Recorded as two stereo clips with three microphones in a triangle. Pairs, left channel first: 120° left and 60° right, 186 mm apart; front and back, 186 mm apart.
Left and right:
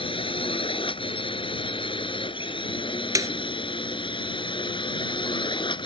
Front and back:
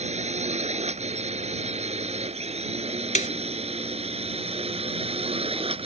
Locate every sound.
0.0 s a drone: 160° left
3.1 s a snare drum: straight ahead